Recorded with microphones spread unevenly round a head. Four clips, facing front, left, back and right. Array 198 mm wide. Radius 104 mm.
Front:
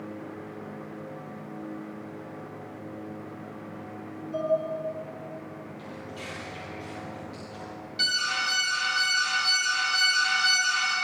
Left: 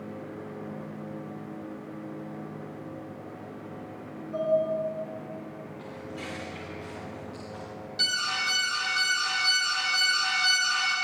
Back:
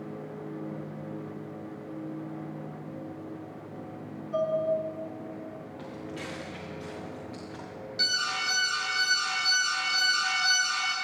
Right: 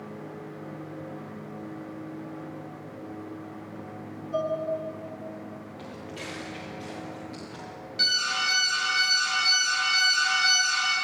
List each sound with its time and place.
4.3 s dishes clattering: 120° right, 5.5 m
5.8 s footsteps: 135° right, 6.5 m; by 7.7 s 145° right, 6 m
8.0 s an alarm: 150° left, 2.5 m